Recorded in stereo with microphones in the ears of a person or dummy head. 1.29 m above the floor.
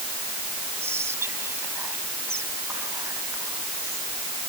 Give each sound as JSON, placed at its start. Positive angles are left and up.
{"t": 0.8, "sound": "whispering", "side_deg": -10}